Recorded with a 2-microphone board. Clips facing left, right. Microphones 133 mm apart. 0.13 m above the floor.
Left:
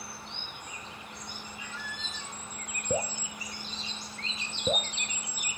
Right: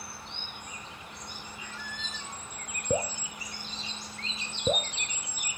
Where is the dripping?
10° right (ahead or behind), 0.8 m.